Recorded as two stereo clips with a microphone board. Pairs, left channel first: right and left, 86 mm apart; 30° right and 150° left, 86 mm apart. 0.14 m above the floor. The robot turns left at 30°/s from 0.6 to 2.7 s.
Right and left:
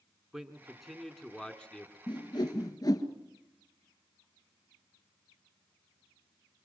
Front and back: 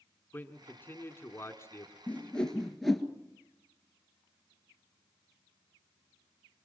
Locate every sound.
0.3 s a man speaking: 5° left, 1.6 m; by 2.0 s 35° right, 1.6 m
2.1 s a whoosh: 95° right, 1.7 m; by 3.0 s 115° right, 1.7 m